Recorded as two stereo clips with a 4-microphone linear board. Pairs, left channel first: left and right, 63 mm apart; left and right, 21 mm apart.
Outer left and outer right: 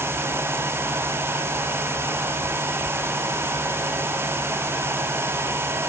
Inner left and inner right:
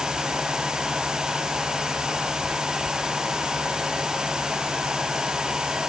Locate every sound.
Only background noise.